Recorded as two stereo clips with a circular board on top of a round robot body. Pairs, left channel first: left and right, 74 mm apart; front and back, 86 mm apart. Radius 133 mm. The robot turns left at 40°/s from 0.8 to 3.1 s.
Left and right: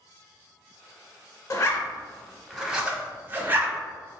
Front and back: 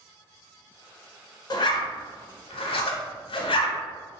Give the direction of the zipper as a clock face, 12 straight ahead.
11 o'clock.